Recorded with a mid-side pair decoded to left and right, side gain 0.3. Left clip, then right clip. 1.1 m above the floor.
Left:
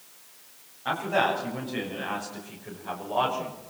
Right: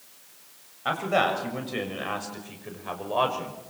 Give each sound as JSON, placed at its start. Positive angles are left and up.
{"t": 0.8, "sound": "a man speaking", "azimuth_deg": -60, "distance_m": 7.5}